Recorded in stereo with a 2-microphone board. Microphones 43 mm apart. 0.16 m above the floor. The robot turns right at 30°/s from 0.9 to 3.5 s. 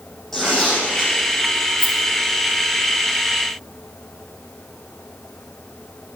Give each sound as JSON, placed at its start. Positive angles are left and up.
{"t": 0.3, "sound": "tearing paper", "side_deg": 5, "distance_m": 6.0}
{"t": 1.8, "sound": "a rattle", "side_deg": 30, "distance_m": 2.5}